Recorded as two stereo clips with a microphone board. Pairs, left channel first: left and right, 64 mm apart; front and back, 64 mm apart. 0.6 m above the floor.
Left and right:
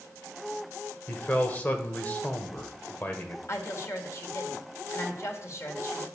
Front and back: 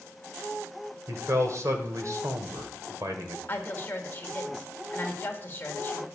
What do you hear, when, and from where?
1.1 s a man speaking: 150° left, 1.9 m
3.5 s a woman speaking: 55° left, 1.9 m